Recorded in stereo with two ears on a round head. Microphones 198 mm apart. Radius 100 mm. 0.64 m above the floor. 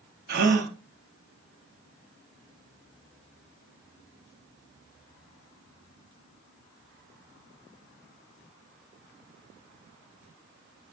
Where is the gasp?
50° right (ahead or behind), 0.6 m.